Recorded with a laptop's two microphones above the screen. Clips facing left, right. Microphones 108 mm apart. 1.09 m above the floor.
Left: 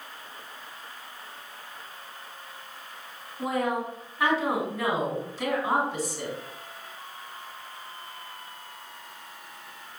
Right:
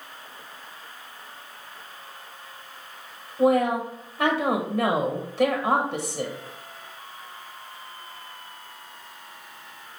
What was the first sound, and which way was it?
A woman speaking, 65° right (ahead or behind).